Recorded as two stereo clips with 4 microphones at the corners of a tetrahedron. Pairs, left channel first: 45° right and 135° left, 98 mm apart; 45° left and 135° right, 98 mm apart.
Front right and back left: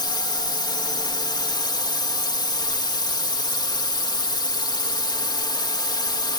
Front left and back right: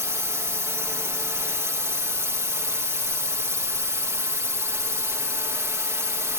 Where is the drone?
75° right.